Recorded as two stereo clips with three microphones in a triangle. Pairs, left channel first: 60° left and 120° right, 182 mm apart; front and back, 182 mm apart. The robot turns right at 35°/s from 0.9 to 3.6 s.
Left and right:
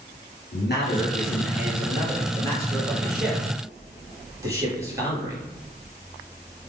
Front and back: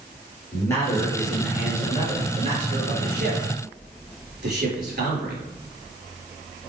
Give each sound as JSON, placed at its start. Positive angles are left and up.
{"t": 0.5, "sound": "a man speaking", "azimuth_deg": 75, "distance_m": 3.5}